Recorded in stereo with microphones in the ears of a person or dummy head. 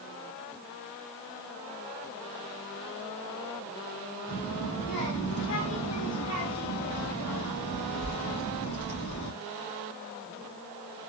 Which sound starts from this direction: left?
A child speaking, at 4.3 s.